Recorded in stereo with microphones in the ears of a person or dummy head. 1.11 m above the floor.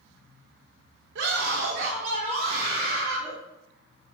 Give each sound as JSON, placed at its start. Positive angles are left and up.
{"t": 1.1, "sound": "a scream", "side_deg": -60, "distance_m": 1.3}